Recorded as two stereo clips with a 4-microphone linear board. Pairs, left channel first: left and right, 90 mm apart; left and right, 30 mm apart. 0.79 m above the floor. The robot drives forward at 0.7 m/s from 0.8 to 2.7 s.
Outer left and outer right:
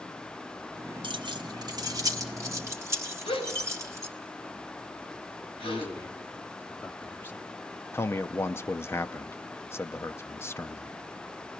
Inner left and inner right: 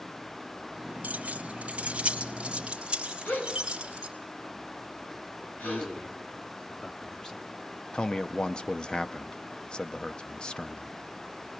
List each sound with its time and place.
1.0 s keys jangling: 60° right (ahead or behind), 1.3 m; by 4.1 s 35° right (ahead or behind), 2 m
3.2 s a gasp: 80° left, 3.5 m
5.6 s a man speaking: 25° left (ahead or behind), 1.7 m
7.9 s a man speaking: 25° left (ahead or behind), 0.8 m